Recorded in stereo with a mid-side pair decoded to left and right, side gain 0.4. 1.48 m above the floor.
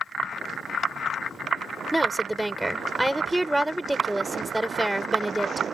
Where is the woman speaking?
15° right.